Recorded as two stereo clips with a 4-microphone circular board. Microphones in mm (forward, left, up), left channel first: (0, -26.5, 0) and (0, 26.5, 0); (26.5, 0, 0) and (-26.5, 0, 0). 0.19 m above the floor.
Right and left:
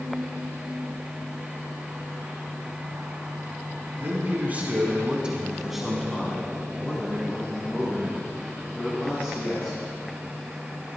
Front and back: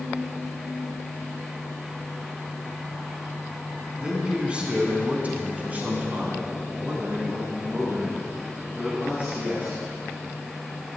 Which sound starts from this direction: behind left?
A man speaking, at 4.0 s.